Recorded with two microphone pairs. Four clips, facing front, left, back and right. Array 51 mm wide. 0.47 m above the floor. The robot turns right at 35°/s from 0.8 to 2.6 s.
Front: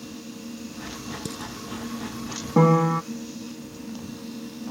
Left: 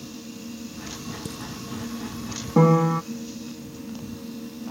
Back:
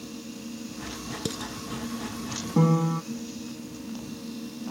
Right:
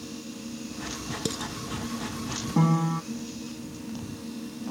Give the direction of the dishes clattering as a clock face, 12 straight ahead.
5 o'clock.